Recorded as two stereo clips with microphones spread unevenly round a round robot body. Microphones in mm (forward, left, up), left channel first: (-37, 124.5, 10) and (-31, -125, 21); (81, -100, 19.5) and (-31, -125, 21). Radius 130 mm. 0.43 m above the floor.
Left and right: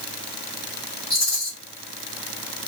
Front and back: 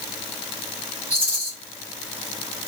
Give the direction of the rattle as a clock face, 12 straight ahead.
7 o'clock.